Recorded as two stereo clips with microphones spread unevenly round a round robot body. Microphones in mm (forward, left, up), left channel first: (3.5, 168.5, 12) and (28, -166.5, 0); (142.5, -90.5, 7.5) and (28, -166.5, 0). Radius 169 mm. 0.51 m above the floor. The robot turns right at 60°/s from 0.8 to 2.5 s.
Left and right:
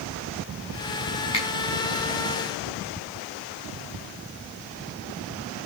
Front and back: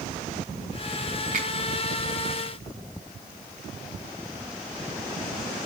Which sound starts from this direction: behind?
A finger snap, at 1.3 s.